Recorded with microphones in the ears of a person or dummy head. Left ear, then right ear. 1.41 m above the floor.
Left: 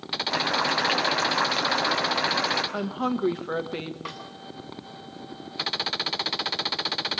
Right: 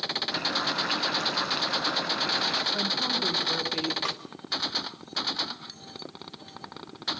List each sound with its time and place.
0.3 s boiling: 40° left (ahead or behind), 5 m
2.7 s a woman speaking: 40° left (ahead or behind), 1.5 m
4.0 s a snare drum: 30° right (ahead or behind), 1.3 m